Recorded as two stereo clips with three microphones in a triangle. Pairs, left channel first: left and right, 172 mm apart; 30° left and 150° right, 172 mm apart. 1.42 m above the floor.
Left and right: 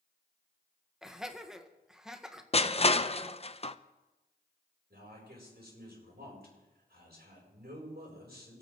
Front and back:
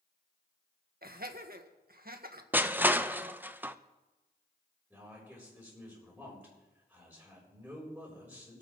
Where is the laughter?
175° right, 1.6 m.